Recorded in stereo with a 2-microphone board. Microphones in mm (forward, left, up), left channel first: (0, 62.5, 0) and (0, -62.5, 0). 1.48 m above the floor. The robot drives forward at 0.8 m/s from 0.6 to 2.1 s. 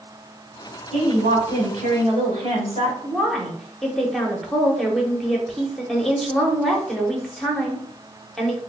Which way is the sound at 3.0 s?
Centre (ahead or behind).